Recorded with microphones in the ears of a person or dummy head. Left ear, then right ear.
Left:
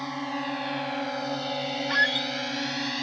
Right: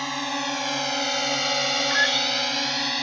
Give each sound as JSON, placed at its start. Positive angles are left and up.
{"t": 0.0, "sound": "a drone", "side_deg": -70}
{"t": 1.9, "sound": "a squeak", "side_deg": -5}